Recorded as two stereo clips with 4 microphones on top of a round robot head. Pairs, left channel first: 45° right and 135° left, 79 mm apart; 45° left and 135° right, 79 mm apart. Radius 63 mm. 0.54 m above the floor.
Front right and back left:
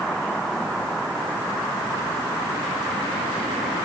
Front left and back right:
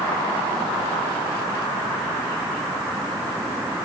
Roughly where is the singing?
I don't hear singing.